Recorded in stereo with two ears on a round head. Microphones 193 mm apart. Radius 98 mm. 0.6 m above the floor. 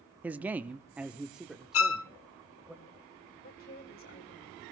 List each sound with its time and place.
0.2 s a man speaking: 5° right (ahead or behind), 0.7 m; by 2.7 s centre (ahead or behind), 2.5 m
1.7 s a violin: 65° left (ahead or behind), 0.7 m
3.4 s a woman speaking: 45° left (ahead or behind), 2.5 m